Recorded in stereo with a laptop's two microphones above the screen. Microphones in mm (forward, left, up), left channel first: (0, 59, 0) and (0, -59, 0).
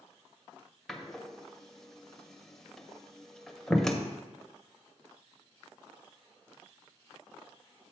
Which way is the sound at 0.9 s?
5° left (ahead or behind).